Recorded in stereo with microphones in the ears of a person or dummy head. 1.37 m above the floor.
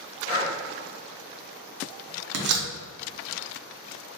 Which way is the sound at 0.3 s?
55° left (ahead or behind).